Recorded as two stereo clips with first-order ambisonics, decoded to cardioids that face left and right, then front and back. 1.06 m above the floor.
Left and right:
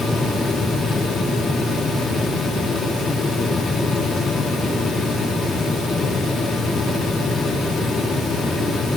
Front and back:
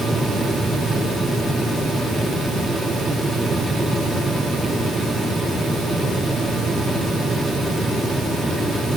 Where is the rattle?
No rattle in this recording.